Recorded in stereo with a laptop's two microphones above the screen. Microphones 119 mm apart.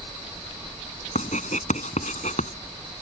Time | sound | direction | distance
1.1 | writing | 90° left | ?